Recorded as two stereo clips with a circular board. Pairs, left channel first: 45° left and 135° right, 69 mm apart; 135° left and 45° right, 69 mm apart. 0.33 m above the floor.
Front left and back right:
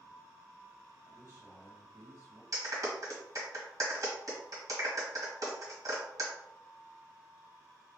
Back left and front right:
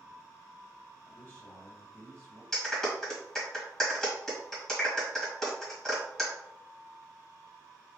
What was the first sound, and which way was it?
A man speaking, 170° right.